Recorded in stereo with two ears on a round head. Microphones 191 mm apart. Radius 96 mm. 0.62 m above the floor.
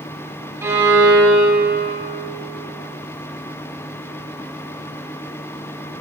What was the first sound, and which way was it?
A violin, 15° right (ahead or behind).